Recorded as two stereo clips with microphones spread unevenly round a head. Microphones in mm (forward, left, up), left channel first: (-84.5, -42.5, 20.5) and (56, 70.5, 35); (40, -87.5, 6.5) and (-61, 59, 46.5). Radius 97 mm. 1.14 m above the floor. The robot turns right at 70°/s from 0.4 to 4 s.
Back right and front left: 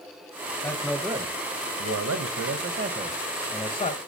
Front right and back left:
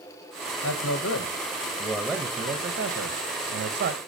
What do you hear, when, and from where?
0.6 s a man speaking: 70° right, 0.7 m; by 4.0 s 165° left, 0.7 m